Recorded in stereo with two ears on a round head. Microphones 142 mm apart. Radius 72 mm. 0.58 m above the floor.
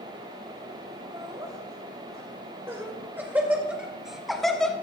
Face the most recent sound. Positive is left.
turn(degrees=5)  # may be behind; listen again after turning